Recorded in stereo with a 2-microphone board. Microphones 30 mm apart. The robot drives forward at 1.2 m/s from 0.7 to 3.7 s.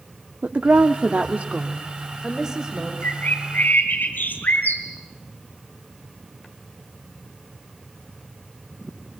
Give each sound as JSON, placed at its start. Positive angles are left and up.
{"t": 0.4, "sound": "a woman speaking", "side_deg": -70, "distance_m": 1.1}
{"t": 3.0, "sound": "a bird", "side_deg": 80, "distance_m": 3.5}